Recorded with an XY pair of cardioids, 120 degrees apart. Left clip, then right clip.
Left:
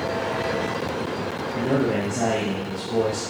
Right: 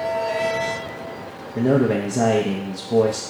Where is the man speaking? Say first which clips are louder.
Right 5 dB; 40° right, 0.7 m.